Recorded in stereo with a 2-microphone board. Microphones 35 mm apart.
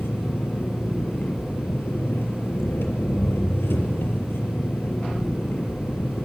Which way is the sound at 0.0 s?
85° left.